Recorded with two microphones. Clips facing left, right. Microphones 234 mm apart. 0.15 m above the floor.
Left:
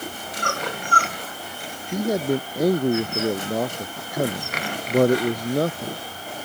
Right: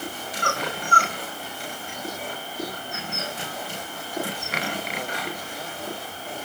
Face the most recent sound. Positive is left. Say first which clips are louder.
# left 16 dB
turn(degrees=70)  # may be behind; listen again after turning